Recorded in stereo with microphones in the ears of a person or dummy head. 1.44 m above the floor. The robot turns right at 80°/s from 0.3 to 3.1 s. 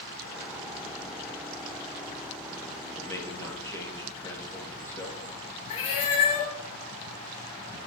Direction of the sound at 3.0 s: 5° left (ahead or behind).